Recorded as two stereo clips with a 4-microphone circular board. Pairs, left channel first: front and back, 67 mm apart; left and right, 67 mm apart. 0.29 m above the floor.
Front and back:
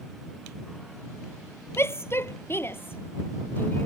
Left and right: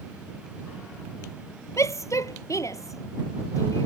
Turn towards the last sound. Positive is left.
turn(degrees=60)